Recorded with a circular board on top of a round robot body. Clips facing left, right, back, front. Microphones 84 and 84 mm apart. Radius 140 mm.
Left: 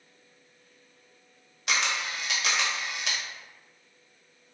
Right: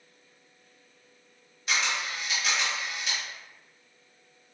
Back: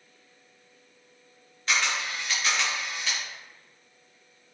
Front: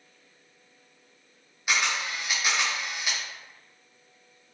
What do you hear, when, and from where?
1.7 s a camera shutter: 80° left, 0.7 m